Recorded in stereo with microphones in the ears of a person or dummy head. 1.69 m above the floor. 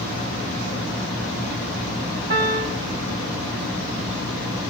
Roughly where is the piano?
Right.